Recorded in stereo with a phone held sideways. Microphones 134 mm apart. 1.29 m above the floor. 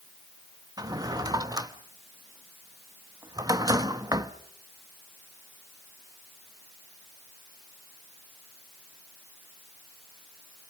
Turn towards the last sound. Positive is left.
turn(degrees=-25)  # may be behind; listen again after turning